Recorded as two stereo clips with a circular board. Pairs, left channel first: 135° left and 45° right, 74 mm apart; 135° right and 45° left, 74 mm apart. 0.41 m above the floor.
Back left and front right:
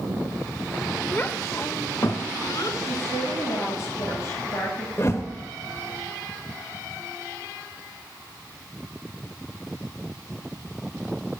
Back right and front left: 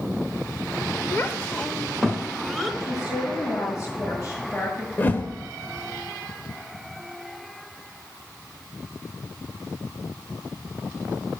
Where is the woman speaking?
175° right, 7.5 m.